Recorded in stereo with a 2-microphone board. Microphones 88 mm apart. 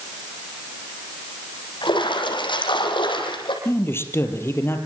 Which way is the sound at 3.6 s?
30° left (ahead or behind).